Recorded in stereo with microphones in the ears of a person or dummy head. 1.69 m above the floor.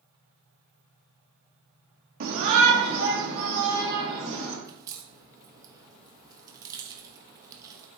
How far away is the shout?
About 0.9 m.